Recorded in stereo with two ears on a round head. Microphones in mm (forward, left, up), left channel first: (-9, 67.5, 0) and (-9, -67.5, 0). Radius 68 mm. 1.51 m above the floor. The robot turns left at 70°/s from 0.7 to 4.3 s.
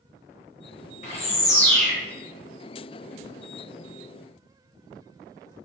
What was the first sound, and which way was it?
A bird, 55° left.